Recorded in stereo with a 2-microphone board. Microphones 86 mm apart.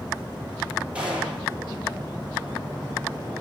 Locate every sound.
0.9 s a gunshot: 15° right (ahead or behind), 9 m